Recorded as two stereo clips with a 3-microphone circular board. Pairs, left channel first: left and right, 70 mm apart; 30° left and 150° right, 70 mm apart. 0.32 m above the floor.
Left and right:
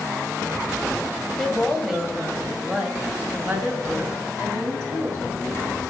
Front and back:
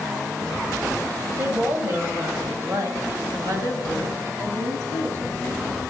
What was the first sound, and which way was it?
A woman speaking, 175° left.